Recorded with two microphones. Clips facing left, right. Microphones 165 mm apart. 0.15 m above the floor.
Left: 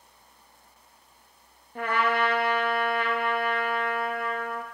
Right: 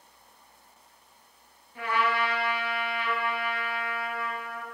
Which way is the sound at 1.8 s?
55° left (ahead or behind).